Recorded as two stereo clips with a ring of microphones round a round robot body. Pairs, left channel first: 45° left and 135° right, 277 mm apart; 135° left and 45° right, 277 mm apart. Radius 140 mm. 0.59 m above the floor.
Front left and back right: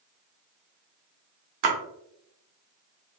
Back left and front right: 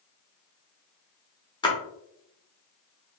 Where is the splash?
150° right, 0.8 m.